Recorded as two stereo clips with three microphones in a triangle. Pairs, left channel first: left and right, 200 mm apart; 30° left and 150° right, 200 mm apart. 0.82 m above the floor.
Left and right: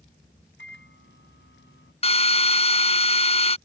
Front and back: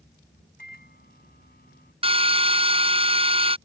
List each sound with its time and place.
0.6 s a microwave: 70° left
2.0 s a drill: 150° left